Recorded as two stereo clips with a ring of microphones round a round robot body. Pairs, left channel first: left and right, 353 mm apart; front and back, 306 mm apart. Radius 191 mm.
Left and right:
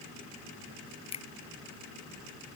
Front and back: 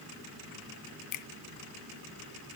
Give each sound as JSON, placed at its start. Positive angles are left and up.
{"t": 1.1, "sound": "a finger snap", "azimuth_deg": 15}